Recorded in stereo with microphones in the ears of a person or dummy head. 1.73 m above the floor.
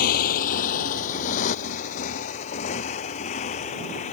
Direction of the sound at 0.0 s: 55° left (ahead or behind).